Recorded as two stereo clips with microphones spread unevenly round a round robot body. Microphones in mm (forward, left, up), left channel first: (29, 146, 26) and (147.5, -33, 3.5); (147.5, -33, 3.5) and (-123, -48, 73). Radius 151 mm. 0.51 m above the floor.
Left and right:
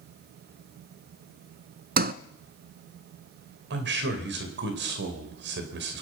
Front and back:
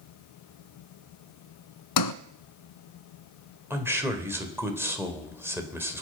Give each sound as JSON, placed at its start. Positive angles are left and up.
{"t": 2.0, "sound": "a sliding door", "azimuth_deg": -10, "distance_m": 0.9}
{"t": 3.7, "sound": "a man speaking", "azimuth_deg": -90, "distance_m": 2.5}